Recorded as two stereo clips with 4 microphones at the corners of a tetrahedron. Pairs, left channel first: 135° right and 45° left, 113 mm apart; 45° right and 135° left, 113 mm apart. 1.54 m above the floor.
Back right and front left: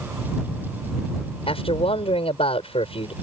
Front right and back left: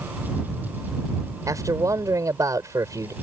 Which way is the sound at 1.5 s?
165° right.